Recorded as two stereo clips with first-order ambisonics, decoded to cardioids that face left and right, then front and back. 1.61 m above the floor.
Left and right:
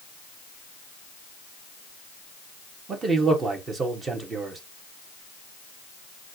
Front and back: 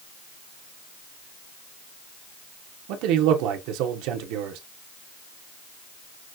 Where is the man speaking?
160° right, 1.0 m.